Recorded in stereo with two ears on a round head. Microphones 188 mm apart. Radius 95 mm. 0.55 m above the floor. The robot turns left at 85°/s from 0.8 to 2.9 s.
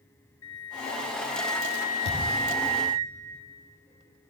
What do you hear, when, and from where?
0.4 s a flute: 80° left, 3.5 m; by 3.0 s 100° right, 3.5 m
2.0 s a thud: 30° right (ahead or behind), 7 m; by 2.4 s 65° right (ahead or behind), 7 m